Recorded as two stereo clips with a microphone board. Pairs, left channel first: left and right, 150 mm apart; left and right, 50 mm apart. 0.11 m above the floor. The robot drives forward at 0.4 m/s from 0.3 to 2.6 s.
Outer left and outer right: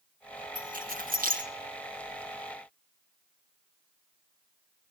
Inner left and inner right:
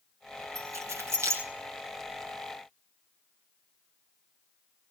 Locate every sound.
0.6 s keys jangling: 65° right (ahead or behind), 3.5 m; by 1.4 s 70° right (ahead or behind), 3.5 m